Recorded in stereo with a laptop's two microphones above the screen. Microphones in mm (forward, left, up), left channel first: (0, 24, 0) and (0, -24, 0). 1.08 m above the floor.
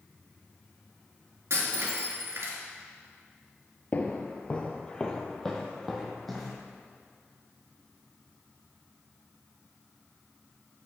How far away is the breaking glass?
About 3 m.